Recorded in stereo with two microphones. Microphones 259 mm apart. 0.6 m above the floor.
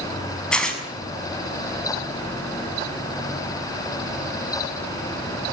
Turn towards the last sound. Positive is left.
turn(degrees=5)  # may be behind; listen again after turning